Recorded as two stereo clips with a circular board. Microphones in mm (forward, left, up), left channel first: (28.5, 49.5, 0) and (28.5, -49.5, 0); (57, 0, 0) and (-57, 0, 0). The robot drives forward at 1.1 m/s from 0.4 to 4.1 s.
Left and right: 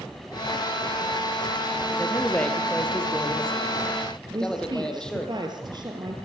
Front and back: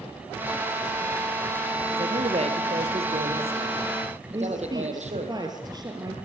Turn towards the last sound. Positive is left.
turn(degrees=-130)